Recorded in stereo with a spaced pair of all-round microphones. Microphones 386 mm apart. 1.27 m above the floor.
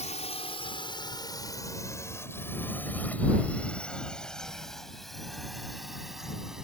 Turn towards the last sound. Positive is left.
turn(degrees=0)  # may be behind; listen again after turning